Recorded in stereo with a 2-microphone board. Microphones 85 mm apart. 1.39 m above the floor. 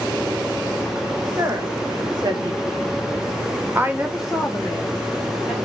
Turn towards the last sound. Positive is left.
turn(degrees=20)  # may be behind; listen again after turning